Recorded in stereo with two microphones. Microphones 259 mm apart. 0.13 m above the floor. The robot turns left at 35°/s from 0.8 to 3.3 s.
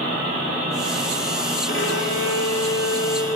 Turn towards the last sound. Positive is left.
turn(degrees=65)